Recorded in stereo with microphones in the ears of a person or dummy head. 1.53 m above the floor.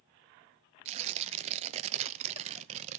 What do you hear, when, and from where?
0.8 s tearing paper: 35° right (ahead or behind), 0.5 m